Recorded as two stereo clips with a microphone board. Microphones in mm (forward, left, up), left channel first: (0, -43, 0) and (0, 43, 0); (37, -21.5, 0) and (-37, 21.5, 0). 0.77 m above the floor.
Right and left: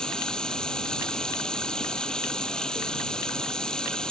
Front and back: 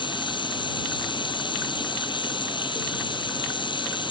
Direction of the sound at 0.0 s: 10° right.